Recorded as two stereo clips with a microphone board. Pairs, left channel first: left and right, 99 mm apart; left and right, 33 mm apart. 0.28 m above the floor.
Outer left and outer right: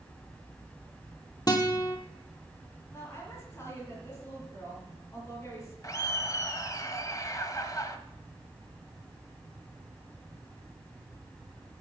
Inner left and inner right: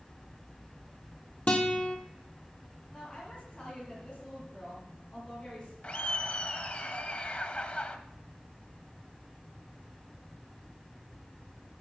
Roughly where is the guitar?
Left.